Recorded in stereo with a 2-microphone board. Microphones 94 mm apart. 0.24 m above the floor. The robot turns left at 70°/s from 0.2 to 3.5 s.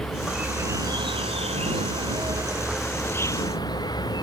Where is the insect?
5° left; by 4.2 s 135° left.